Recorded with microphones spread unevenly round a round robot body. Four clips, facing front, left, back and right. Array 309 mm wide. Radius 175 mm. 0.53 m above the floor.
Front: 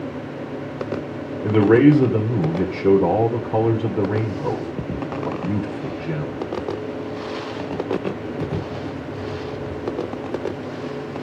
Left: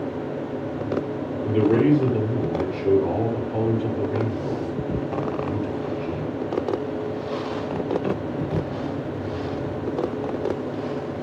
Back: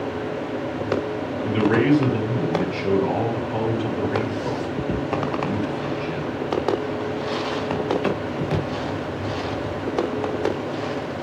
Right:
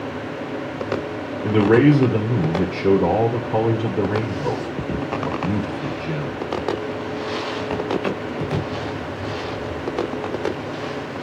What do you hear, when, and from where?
1.4 s a man speaking: 45° right, 2.5 m